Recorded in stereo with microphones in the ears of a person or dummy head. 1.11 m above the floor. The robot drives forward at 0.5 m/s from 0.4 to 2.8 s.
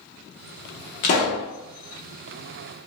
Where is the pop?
35° left (ahead or behind), 0.7 m; by 1.5 s 30° left (ahead or behind), 0.8 m.